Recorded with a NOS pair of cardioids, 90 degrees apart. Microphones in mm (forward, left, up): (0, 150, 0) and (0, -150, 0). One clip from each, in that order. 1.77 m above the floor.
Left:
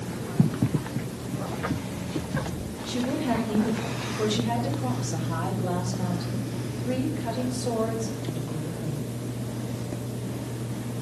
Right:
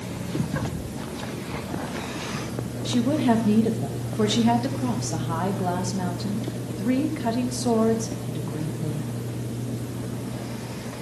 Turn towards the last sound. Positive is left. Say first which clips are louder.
# right 5 dB
turn(degrees=-60)